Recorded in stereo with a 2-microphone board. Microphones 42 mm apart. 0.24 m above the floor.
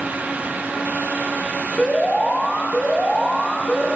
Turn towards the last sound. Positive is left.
turn(degrees=15)  # may be behind; listen again after turning